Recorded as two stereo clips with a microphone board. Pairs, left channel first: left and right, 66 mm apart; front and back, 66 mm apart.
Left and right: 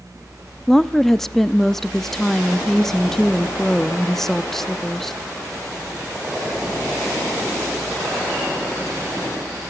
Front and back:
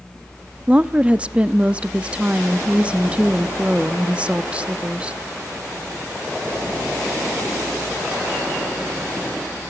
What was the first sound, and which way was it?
A woman speaking, 165° left.